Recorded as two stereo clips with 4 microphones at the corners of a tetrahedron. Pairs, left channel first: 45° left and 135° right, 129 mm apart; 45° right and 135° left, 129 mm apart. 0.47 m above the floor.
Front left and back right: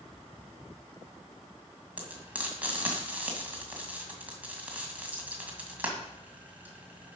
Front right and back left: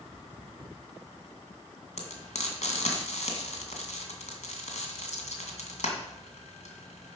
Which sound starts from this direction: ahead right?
Frying, at 2.0 s.